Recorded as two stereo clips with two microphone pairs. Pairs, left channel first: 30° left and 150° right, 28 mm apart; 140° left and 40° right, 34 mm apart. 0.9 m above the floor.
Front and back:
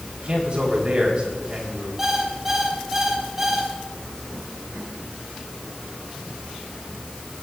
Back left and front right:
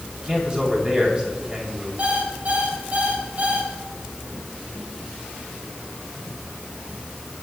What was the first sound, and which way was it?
A man speaking, 100° right.